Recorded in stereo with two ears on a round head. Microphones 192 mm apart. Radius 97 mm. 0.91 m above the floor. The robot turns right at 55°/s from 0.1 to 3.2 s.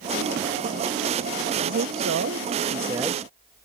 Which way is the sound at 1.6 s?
95° right.